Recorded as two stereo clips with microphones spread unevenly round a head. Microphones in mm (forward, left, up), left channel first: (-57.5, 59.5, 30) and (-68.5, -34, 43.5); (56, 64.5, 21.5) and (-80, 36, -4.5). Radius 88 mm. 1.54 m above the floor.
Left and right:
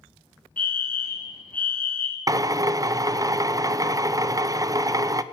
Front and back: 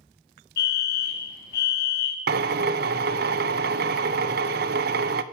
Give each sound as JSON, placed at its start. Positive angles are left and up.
{"t": 0.6, "sound": "a fire alarm", "azimuth_deg": 5, "distance_m": 2.5}
{"t": 2.3, "sound": "a drill", "azimuth_deg": -155, "distance_m": 1.0}